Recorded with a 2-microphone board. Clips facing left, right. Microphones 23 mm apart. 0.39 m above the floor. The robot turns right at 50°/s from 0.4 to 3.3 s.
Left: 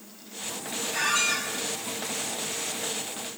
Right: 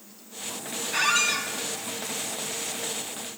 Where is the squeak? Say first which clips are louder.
Right 2 dB; 30° right (ahead or behind), 1.0 m; by 1.5 s 5° right (ahead or behind), 1.0 m.